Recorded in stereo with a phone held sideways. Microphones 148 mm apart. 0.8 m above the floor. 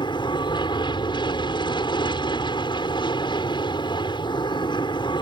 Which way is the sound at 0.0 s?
30° left (ahead or behind).